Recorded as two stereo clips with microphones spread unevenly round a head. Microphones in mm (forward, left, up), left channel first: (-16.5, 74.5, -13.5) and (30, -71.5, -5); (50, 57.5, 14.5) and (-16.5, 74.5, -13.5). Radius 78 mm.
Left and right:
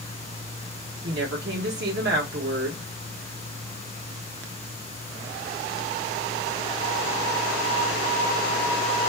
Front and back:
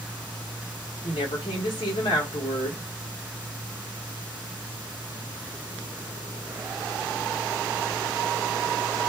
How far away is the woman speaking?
About 1.3 m.